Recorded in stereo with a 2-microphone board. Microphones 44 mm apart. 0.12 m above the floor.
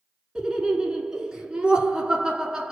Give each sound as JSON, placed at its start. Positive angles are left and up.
{"t": 0.3, "sound": "laughter", "side_deg": -15, "distance_m": 1.1}